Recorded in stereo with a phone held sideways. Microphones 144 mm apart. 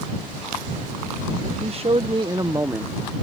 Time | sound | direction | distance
1.6 | a man speaking | 45° right (ahead or behind) | ?